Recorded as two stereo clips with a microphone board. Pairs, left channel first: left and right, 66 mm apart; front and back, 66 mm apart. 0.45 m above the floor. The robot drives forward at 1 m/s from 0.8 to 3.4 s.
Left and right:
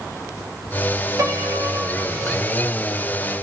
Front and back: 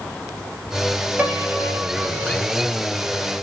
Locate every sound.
1.2 s a piano: 115° right, 2.0 m; by 2.5 s 140° right, 3 m